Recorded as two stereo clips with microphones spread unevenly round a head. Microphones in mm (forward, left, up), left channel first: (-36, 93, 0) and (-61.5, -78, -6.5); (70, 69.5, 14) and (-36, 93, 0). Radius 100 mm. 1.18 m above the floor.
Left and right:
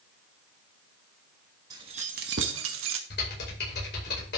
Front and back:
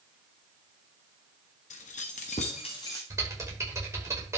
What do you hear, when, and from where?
1.7 s keys jangling: 25° right, 1.2 m; by 3.0 s 90° right, 1.3 m
3.1 s typing on a keyboard: 105° left, 5 m